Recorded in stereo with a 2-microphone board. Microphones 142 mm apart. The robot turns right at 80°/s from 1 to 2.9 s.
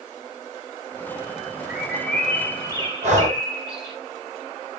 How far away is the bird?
About 0.7 m.